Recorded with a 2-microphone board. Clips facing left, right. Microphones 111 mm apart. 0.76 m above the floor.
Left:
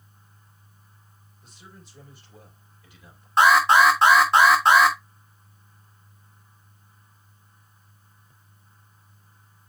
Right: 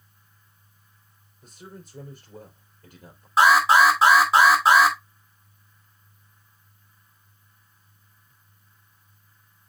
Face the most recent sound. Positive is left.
turn(degrees=-5)  # may be behind; listen again after turning